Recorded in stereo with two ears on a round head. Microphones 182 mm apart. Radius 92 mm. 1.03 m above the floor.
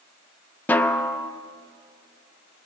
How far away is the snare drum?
About 0.7 m.